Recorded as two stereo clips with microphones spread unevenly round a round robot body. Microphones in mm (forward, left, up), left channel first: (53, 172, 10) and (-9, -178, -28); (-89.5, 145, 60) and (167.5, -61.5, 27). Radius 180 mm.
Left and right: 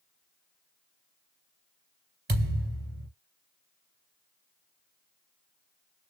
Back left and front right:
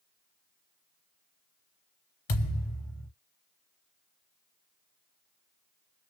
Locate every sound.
2.3 s a thud: 165° right, 3 m